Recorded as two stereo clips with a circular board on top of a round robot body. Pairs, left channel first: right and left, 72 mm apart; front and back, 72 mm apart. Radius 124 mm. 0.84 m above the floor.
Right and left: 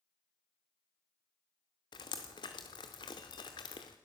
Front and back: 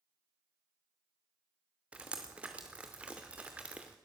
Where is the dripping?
105° right, 0.6 m.